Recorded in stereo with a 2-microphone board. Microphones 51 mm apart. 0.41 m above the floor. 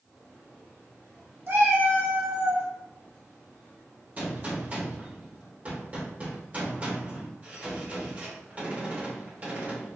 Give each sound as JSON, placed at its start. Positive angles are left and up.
{"t": 1.5, "sound": "a cat meowing", "side_deg": -55, "distance_m": 1.3}
{"t": 4.2, "sound": "a gunshot", "side_deg": -30, "distance_m": 1.8}